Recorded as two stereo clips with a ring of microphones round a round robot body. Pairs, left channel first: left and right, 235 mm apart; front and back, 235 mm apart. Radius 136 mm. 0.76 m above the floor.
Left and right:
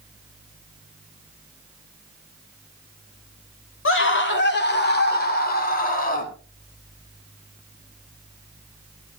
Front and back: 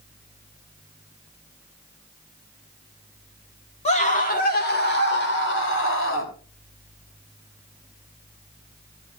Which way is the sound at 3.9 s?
65° left.